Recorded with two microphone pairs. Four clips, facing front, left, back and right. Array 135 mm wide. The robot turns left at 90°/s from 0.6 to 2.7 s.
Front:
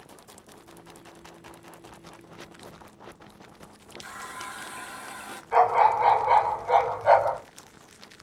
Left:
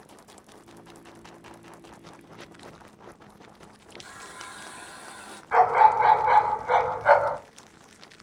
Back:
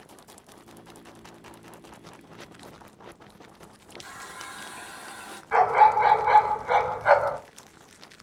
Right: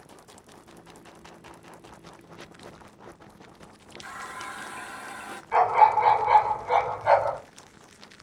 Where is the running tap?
80° right, 0.6 m.